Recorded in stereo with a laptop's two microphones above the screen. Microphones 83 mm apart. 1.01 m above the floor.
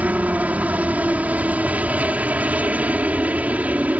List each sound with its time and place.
0.0 s a helicopter: 20° right (ahead or behind)